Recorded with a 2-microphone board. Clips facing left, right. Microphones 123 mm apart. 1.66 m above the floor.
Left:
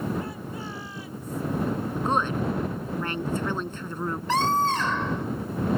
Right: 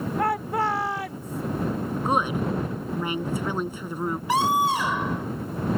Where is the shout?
85° right; by 1.4 s 70° right (ahead or behind).